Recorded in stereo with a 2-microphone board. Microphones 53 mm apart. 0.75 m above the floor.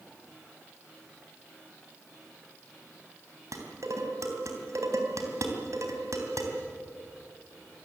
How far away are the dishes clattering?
About 3 m.